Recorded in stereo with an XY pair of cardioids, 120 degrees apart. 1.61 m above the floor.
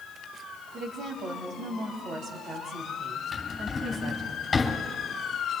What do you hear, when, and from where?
0.7 s a woman speaking: 50° right, 3 m
3.3 s a drawer: 30° left, 3.5 m